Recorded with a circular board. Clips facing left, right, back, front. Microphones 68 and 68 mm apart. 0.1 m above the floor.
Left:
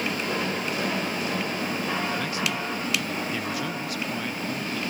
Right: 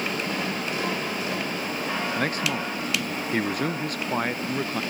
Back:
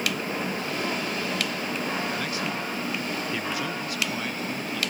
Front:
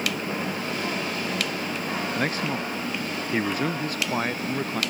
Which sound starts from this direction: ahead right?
A man speaking, at 2.2 s.